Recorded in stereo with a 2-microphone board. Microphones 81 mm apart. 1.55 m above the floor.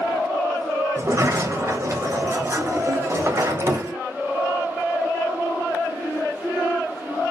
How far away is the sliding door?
About 0.9 m.